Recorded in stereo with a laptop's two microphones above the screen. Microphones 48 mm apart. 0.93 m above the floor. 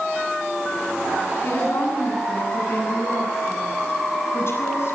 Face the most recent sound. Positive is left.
turn(degrees=60)  # may be behind; listen again after turning